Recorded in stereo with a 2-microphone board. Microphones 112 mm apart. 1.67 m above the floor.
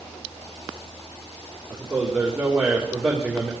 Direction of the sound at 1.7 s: 10° right (ahead or behind).